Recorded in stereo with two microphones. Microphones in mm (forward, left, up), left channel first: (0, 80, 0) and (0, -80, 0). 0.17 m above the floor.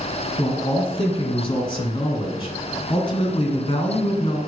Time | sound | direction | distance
0.4 | a man speaking | 30° left (ahead or behind) | 1.7 m